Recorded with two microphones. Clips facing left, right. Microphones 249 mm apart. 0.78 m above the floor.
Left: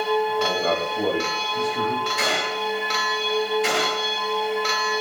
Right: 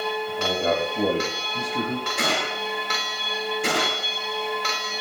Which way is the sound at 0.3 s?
20° right (ahead or behind).